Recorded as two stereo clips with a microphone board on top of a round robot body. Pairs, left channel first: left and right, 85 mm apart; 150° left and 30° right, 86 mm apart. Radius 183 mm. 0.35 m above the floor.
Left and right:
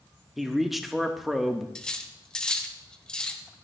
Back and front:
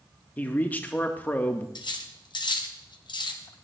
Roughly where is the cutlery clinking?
Behind.